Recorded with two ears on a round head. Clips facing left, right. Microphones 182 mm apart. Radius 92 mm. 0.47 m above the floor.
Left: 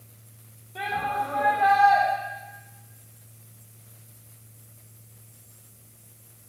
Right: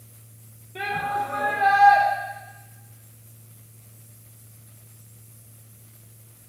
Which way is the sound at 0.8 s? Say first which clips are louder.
Right 1 dB; 25° right (ahead or behind).